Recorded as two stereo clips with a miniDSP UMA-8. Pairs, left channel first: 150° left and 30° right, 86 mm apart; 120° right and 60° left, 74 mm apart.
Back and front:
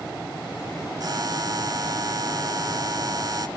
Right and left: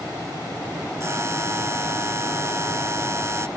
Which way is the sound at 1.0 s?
10° left.